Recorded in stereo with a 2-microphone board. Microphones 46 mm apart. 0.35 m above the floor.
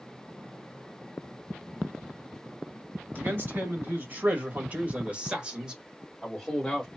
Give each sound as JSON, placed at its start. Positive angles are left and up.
{"t": 3.1, "sound": "a man speaking", "side_deg": -55, "distance_m": 1.9}